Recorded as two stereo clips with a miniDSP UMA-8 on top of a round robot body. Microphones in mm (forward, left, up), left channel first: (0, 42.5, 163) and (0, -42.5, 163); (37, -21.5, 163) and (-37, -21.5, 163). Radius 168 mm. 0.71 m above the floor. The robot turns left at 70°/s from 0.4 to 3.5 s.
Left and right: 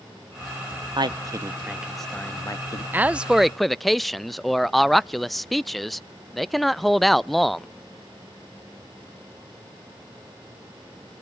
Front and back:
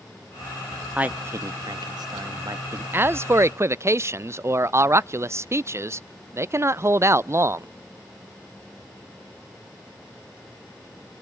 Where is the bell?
No bell in this recording.